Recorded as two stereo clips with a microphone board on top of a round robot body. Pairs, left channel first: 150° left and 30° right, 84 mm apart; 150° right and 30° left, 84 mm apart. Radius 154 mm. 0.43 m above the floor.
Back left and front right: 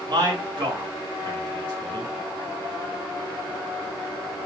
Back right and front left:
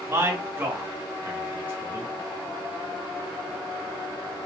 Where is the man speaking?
25° right, 1.9 m.